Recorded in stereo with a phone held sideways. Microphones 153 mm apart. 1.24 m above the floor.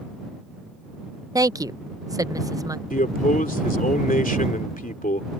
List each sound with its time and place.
1.4 s a woman speaking: 25° right (ahead or behind)
2.9 s a man speaking: 65° left (ahead or behind)